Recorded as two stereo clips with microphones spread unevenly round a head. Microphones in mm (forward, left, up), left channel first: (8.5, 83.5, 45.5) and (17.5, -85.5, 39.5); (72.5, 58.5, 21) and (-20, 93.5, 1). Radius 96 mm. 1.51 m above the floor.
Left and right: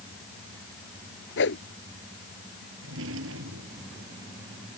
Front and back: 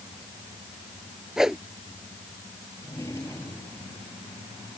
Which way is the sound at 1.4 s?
75° left.